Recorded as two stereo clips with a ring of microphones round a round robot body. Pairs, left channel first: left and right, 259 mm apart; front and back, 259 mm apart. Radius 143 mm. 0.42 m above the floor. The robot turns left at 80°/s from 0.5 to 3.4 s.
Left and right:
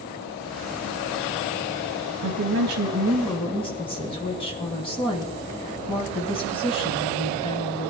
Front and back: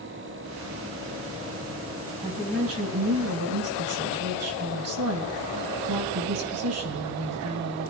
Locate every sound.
2.2 s a woman speaking: 105° right, 3 m; by 7.9 s 160° left, 3 m